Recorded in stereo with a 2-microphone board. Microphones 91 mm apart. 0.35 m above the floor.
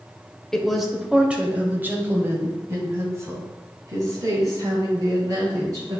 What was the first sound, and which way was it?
A woman speaking, 5° left (ahead or behind).